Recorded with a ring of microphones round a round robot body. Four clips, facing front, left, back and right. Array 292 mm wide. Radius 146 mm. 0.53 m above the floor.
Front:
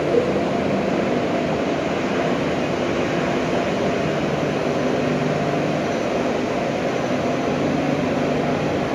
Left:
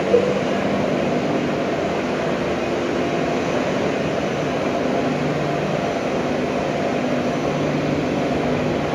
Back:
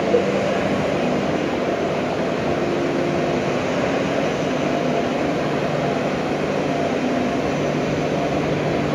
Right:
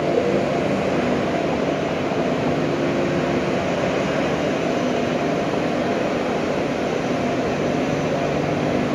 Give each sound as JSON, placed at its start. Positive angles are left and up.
{"t": 0.1, "sound": "a cowbell", "azimuth_deg": 110, "distance_m": 1.2}